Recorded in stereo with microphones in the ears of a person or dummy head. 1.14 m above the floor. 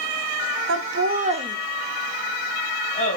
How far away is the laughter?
About 1.2 m.